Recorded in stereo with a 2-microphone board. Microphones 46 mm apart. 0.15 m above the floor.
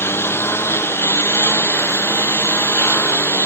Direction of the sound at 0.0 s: 60° left (ahead or behind).